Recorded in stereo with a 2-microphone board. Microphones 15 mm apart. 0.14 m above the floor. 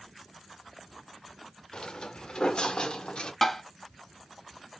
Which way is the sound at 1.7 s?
65° left (ahead or behind).